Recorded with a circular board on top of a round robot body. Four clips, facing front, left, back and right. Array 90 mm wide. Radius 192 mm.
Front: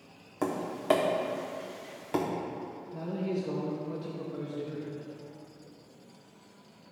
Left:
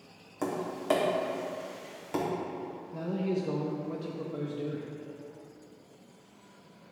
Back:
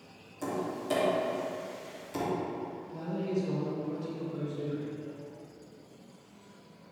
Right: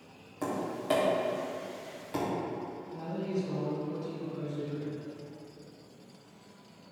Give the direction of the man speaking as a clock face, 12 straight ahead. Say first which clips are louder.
Left 3 dB, even; 10 o'clock.